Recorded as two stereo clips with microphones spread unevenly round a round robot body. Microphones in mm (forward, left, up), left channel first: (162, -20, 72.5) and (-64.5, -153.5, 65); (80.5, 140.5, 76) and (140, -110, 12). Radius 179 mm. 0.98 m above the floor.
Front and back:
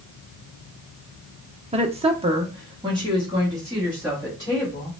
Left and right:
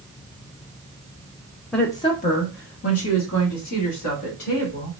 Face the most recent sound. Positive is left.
turn(degrees=130)